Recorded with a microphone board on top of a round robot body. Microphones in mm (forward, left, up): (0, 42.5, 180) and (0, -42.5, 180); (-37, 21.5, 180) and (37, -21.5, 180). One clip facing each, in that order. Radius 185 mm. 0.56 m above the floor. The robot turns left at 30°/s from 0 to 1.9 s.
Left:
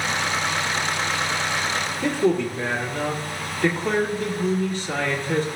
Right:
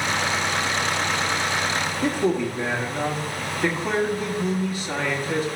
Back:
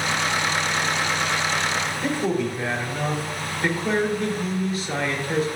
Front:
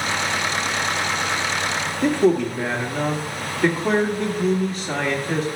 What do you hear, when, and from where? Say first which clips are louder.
2.0 s a man speaking: left 2 dB, front 8 dB; 10° right, 1.8 m